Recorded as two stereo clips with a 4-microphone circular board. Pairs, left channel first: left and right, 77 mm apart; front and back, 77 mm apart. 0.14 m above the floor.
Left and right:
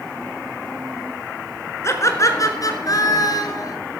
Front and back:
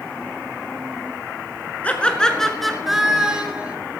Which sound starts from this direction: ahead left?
Laughter, at 1.8 s.